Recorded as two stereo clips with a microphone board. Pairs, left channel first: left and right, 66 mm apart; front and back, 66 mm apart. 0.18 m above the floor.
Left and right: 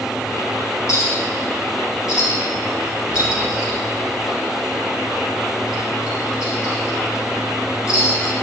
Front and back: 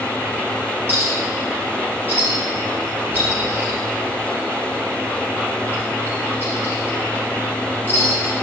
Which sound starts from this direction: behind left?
A clink, at 0.9 s.